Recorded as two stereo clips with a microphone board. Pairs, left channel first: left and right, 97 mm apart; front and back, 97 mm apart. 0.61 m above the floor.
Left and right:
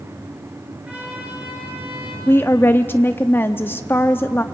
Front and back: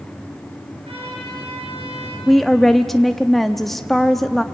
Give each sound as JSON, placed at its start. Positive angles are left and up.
{"t": 0.8, "sound": "a trumpet", "azimuth_deg": -165, "distance_m": 7.5}
{"t": 2.3, "sound": "a woman speaking", "azimuth_deg": 85, "distance_m": 0.5}